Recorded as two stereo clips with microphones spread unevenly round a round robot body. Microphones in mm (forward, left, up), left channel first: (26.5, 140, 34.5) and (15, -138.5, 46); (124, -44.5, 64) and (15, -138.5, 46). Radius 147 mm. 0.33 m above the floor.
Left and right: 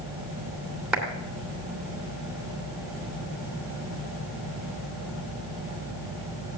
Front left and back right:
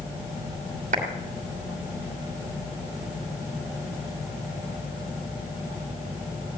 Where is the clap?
Straight behind, 2.5 m.